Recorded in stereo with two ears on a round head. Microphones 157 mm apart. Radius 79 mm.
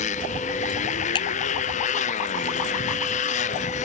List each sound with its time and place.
0.0 s a motorcycle: 40° left (ahead or behind)
1.1 s a finger snap: 25° left (ahead or behind)